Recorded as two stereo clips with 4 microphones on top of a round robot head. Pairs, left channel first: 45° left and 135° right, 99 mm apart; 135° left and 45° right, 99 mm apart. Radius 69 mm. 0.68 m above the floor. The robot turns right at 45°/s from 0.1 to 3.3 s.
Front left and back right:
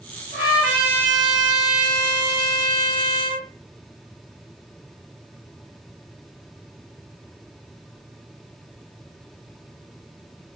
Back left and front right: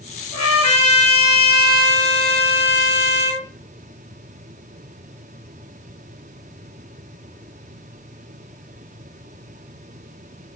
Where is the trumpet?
140° left, 2.5 m; by 3.5 s 85° right, 2.5 m.